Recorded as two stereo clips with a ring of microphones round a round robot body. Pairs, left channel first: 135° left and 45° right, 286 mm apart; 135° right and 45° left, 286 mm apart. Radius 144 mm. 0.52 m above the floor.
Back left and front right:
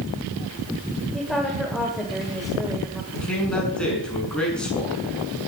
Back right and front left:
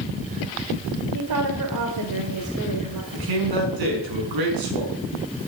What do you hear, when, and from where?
1.1 s a woman speaking: 45° left, 2 m
3.1 s a man speaking: 50° left, 6.5 m